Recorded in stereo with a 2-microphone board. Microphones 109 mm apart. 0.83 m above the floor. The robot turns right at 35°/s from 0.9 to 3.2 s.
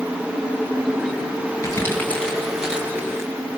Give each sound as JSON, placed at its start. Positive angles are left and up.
{"t": 1.6, "sound": "crumpling", "side_deg": 30, "distance_m": 8.5}